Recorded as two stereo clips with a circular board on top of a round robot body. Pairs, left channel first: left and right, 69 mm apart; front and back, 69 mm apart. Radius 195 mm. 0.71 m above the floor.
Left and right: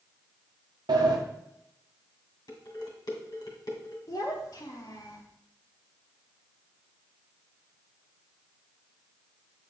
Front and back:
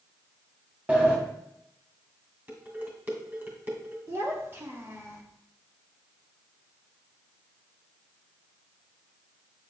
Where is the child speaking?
120° left, 1.8 m.